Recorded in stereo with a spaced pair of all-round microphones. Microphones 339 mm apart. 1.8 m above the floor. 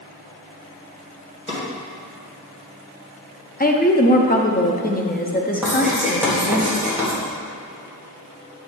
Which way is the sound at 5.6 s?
5° right (ahead or behind).